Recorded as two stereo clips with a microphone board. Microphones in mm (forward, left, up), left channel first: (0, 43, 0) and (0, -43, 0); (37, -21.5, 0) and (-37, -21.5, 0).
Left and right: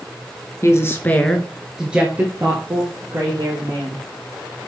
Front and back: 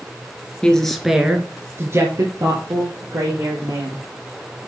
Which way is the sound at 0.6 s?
70° left.